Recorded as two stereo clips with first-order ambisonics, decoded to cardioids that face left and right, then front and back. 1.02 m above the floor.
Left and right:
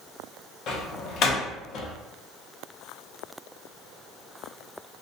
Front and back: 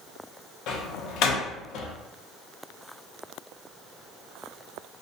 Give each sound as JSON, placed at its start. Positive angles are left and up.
{"t": 0.7, "sound": "a door slam", "azimuth_deg": 40, "distance_m": 0.6}